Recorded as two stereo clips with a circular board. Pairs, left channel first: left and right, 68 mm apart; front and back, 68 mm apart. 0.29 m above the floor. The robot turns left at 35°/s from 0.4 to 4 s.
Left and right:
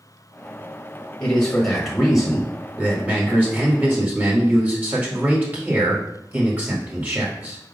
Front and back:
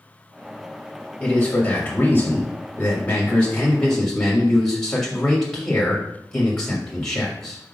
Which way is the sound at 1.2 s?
30° left.